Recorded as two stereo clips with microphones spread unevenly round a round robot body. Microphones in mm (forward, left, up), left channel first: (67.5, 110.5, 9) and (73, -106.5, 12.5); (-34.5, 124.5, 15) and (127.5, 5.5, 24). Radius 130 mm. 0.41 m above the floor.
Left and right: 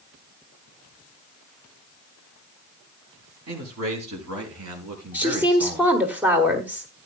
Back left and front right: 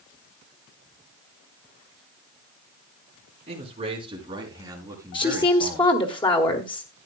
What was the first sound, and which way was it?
A man speaking, 95° right.